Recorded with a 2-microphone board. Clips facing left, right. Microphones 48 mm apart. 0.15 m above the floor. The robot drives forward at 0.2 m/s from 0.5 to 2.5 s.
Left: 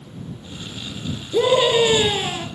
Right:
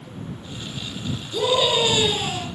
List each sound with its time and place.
1.3 s a scream: 35° left (ahead or behind), 2 m